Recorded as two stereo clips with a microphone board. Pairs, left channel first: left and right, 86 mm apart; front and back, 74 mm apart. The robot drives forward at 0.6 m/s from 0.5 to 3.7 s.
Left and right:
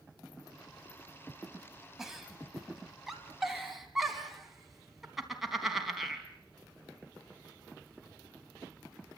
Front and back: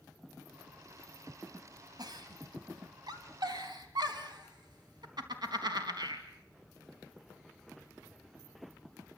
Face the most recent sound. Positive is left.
turn(degrees=-175)